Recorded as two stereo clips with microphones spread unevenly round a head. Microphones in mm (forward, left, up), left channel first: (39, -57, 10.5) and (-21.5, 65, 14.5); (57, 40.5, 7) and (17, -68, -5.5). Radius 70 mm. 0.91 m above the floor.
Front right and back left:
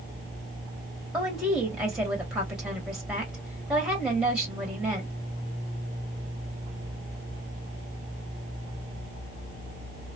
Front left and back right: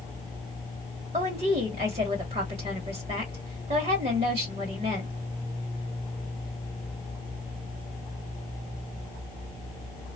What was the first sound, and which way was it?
A woman speaking, 155° right.